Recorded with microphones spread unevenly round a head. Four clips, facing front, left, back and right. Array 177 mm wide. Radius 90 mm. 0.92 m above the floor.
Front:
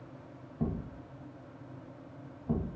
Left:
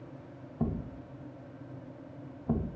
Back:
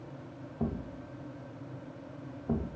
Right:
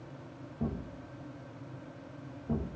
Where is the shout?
No shout in this recording.